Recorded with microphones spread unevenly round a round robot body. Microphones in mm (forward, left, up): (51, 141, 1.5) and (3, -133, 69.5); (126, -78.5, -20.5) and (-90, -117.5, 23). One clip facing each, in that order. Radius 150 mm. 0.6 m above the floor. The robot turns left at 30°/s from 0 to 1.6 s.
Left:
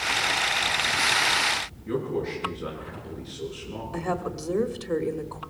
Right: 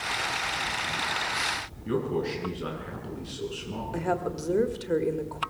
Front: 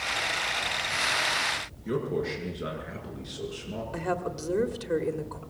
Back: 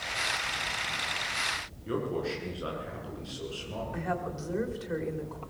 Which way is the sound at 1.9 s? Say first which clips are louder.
Even, front 2 dB; 60° right.